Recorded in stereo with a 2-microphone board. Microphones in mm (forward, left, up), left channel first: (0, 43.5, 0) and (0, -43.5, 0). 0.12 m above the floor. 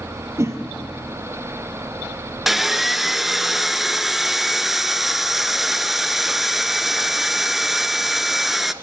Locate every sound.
0.4 s a whoosh: 35° right (ahead or behind), 3 m
2.5 s sawing: centre (ahead or behind), 0.7 m